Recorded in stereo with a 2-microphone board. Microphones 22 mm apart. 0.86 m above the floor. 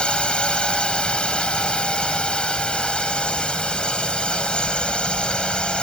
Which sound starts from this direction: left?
A drone, at 0.0 s.